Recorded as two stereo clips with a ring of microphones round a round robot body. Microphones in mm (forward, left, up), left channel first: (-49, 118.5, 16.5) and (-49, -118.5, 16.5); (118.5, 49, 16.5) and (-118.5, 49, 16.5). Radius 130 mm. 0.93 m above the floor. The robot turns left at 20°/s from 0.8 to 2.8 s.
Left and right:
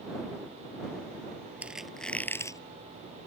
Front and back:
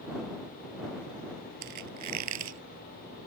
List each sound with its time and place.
1.6 s a squeak: 175° right; by 2.6 s 165° left